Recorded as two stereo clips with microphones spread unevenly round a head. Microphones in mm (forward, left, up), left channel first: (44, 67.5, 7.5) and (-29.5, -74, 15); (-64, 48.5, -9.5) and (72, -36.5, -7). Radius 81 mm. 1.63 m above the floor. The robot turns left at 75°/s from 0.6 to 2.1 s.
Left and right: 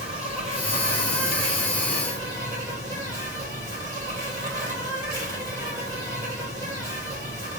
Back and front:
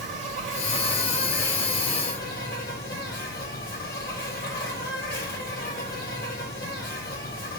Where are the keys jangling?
No keys jangling in this recording.